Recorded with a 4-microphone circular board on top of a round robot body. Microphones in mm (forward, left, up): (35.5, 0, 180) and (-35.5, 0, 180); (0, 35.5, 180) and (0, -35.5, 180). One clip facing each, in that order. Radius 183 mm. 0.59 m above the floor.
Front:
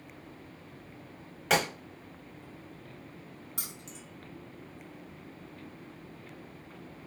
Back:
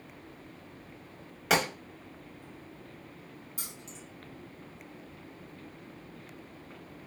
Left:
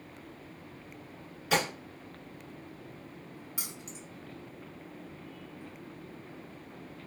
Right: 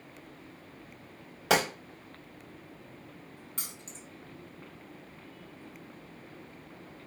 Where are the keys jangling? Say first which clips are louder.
Front 1 dB, left 2 dB; 10° left, 1.6 m.